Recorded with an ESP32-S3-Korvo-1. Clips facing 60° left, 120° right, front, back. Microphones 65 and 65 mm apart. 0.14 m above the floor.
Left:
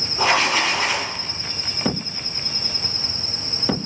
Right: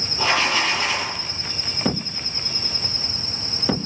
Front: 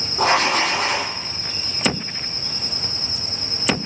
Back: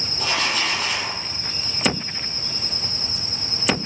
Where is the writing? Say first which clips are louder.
Left 2 dB, front 7 dB; 10° right, 7.5 m.